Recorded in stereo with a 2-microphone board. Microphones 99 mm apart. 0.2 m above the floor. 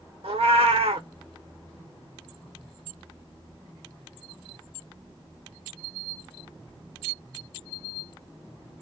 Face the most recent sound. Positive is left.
turn(degrees=-80)